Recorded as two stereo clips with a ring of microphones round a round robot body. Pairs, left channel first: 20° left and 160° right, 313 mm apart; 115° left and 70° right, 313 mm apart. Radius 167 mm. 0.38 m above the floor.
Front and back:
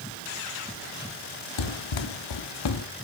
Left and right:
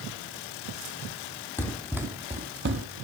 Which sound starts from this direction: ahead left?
Running footsteps, at 1.6 s.